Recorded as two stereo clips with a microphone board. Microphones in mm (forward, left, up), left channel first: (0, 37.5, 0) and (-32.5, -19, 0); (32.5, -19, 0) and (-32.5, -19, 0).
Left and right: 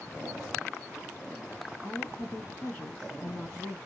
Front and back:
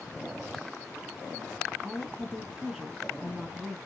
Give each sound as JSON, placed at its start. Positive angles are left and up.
{"t": 1.8, "sound": "a woman speaking", "azimuth_deg": 105, "distance_m": 1.2}